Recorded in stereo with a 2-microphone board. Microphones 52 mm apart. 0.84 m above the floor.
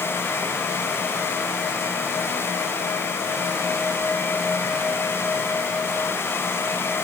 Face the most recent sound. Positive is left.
No sound to turn to.